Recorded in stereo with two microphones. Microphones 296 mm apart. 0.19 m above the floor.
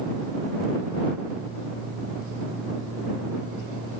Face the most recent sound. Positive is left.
No sound to turn to.